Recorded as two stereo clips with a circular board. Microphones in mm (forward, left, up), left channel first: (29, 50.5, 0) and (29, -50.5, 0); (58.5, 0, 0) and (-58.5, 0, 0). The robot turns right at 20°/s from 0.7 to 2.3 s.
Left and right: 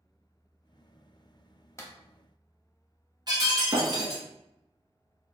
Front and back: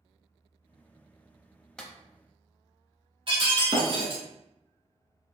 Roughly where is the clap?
Left.